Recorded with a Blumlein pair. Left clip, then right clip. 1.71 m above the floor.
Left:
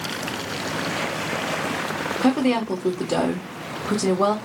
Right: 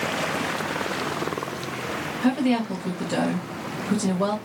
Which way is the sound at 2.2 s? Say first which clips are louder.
Left 2 dB; 25° left.